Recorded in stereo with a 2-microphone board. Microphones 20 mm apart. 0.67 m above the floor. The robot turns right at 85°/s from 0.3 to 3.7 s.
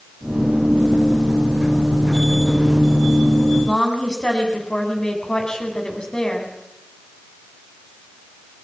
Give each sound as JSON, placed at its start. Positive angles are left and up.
{"t": 3.6, "sound": "a woman speaking", "side_deg": 35, "distance_m": 4.0}